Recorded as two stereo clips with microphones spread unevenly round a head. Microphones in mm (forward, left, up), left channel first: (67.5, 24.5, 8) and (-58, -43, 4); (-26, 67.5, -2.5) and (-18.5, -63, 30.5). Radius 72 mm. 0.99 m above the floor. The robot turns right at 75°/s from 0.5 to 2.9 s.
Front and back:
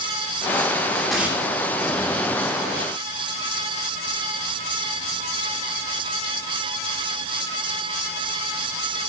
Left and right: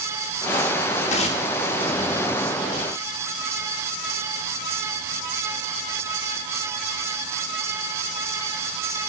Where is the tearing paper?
115° left, 2.5 m; by 1.4 s 145° left, 2.5 m.